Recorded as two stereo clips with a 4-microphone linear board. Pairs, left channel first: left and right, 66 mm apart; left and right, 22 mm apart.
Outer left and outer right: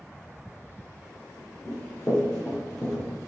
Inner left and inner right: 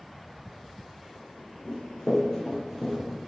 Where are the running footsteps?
30° left (ahead or behind), 1.9 m; by 3.0 s 10° left (ahead or behind), 1.5 m.